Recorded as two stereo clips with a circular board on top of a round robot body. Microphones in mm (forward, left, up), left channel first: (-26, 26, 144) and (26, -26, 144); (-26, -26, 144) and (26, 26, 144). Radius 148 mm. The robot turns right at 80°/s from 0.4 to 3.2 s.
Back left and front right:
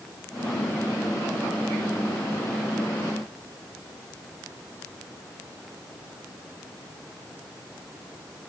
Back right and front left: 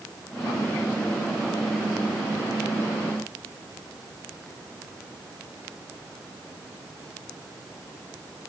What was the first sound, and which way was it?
Only background noise.